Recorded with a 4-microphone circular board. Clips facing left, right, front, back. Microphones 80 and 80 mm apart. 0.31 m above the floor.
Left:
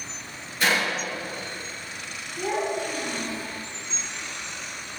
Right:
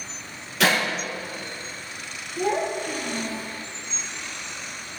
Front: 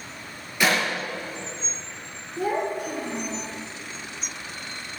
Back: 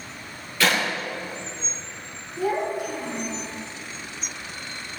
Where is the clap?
75° right, 6 m.